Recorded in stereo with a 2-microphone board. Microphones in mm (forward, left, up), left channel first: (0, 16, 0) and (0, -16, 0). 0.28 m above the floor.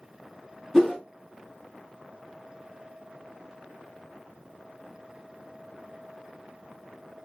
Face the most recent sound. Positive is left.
turn(degrees=15)  # may be behind; listen again after turning